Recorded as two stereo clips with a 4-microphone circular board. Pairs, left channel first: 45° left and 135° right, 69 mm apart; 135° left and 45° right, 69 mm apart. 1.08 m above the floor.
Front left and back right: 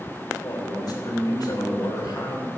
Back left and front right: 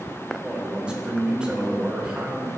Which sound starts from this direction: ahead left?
A man speaking, at 0.4 s.